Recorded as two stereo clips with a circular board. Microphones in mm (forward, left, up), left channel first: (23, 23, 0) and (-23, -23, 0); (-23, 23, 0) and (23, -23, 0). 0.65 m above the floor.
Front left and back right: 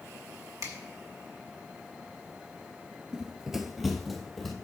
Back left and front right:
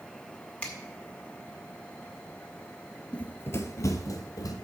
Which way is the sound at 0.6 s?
160° right.